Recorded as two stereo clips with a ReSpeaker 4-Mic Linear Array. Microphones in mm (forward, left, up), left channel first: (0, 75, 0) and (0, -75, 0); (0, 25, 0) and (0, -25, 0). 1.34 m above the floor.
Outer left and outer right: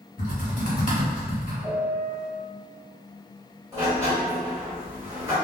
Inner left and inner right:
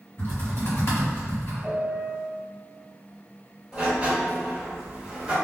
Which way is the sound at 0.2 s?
50° left (ahead or behind).